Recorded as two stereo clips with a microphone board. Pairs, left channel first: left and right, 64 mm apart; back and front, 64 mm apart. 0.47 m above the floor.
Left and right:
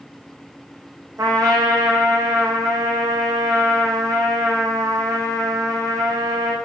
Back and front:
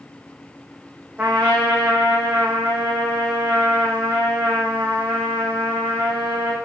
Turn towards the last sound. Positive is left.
turn(degrees=-70)